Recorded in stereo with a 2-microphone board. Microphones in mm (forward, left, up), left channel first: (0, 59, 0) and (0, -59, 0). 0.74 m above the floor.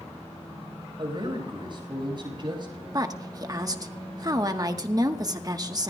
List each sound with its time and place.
1.0 s a man speaking: 45° right (ahead or behind), 4.5 m
2.9 s a woman speaking: 35° right (ahead or behind), 1.1 m